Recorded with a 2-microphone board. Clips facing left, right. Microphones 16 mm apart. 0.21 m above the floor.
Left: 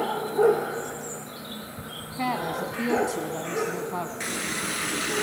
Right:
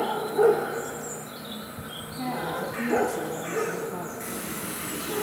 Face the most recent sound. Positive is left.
turn(degrees=45)  # may be behind; listen again after turning